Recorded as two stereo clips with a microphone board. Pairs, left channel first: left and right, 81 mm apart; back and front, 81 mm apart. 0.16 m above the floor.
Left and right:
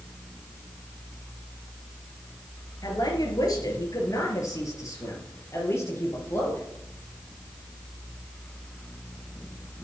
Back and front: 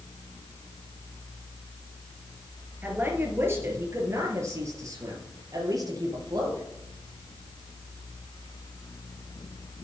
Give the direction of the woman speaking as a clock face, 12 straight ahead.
10 o'clock.